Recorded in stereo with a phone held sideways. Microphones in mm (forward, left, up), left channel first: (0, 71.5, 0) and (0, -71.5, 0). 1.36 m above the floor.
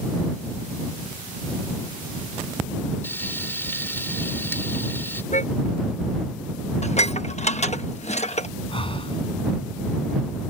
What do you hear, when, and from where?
3.0 s frying: 15° left (ahead or behind)
5.3 s a car horn: 55° left (ahead or behind)
6.8 s dishes clattering: 50° left (ahead or behind)
8.7 s breathing: 40° left (ahead or behind)